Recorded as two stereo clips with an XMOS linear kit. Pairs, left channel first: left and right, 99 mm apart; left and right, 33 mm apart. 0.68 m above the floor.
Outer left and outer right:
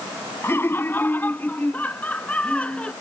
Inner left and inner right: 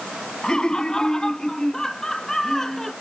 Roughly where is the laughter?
Left.